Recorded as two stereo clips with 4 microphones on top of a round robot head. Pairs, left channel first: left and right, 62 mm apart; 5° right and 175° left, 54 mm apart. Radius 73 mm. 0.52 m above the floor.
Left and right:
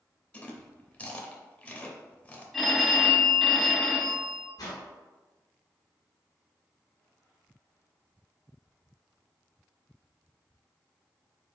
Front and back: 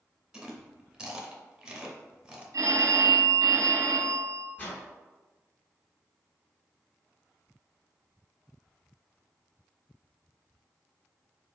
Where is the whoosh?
55° left, 1.1 m.